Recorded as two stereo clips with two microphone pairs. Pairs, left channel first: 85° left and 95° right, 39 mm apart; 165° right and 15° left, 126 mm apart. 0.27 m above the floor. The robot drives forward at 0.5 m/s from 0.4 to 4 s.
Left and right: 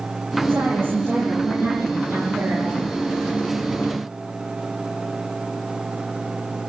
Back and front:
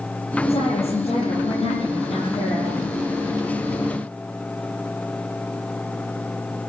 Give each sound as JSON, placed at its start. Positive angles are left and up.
{"t": 0.5, "sound": "a woman speaking", "azimuth_deg": -125, "distance_m": 8.0}